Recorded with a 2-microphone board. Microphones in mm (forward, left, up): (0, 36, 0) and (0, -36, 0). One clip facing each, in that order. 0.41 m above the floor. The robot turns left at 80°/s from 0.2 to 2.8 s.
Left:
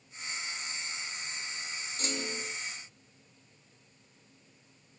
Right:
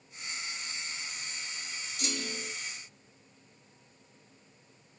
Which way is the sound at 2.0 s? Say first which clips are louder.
Left 1 dB; 50° left.